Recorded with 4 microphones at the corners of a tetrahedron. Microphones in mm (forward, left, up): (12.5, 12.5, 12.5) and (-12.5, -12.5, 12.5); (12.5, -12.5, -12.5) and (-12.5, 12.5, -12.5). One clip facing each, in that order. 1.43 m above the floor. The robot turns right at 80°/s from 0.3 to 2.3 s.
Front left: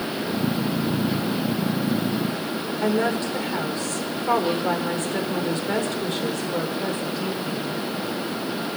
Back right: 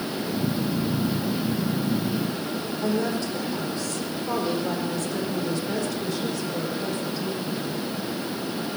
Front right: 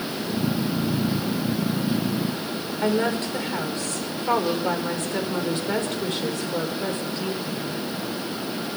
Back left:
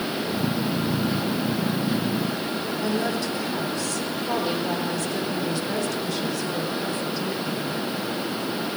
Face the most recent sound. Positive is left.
turn(degrees=5)